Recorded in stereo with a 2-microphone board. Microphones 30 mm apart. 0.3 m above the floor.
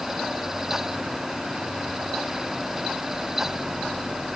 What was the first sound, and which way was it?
Only background noise.